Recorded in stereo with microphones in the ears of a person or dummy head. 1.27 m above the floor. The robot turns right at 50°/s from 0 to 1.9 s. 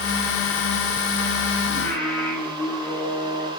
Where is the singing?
5° left (ahead or behind), 2.5 m; by 3.5 s 15° left (ahead or behind), 2.5 m.